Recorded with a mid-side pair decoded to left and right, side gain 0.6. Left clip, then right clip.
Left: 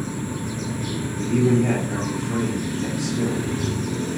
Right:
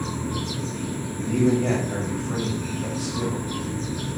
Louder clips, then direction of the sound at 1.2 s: Left 1 dB; 5° right.